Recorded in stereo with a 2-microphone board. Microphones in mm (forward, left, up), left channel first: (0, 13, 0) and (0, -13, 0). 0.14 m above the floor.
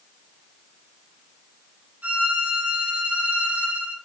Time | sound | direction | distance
2.0 | a violin | 70° right (ahead or behind) | 4 m